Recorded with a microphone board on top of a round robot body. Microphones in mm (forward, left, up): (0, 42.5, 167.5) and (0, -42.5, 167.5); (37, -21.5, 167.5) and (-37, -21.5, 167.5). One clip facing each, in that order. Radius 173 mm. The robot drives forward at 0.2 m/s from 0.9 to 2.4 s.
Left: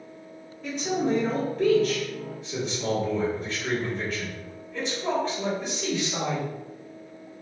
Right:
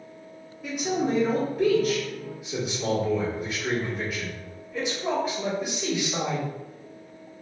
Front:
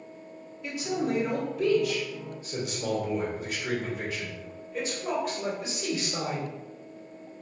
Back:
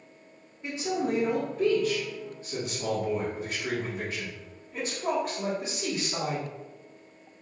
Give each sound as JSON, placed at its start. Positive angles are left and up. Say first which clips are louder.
{"t": 0.6, "sound": "a man speaking", "louder": "even, even", "azimuth_deg": -160, "distance_m": 1.4}